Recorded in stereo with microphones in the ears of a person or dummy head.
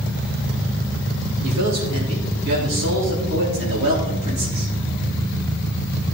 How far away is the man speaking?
About 3.5 m.